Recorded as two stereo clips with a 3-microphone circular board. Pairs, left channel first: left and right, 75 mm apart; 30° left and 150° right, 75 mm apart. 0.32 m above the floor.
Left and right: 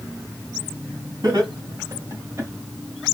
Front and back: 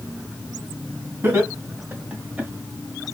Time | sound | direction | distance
1.2 | laughter | 100° right | 1.9 m